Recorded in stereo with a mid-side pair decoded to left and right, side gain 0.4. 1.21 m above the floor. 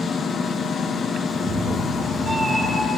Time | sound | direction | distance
1.3 | a cat meowing | 60° right | 2.0 m